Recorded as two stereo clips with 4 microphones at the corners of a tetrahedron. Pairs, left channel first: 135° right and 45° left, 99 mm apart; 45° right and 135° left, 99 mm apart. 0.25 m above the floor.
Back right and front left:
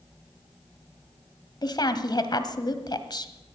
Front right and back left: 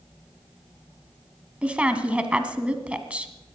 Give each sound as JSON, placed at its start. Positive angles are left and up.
{"t": 1.6, "sound": "a woman speaking", "azimuth_deg": -150, "distance_m": 1.4}